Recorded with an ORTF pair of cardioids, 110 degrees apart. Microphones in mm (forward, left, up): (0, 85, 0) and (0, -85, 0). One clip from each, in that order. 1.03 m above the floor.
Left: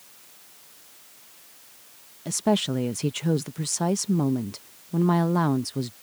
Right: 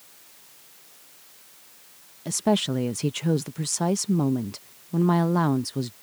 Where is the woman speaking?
5° right.